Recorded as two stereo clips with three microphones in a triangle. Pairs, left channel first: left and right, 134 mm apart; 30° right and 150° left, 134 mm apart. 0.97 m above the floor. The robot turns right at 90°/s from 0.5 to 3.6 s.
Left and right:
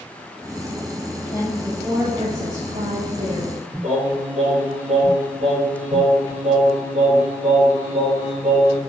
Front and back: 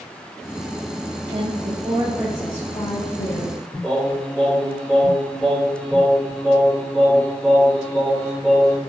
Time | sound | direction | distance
1.3 | a woman speaking | 140° left | 2.5 m
3.8 | singing | 110° right | 4.5 m